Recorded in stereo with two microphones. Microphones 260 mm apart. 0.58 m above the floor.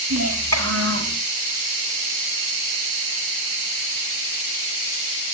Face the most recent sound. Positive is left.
turn(degrees=-60)  # may be behind; listen again after turning